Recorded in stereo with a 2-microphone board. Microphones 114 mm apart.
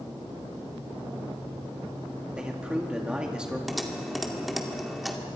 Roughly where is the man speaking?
Centre.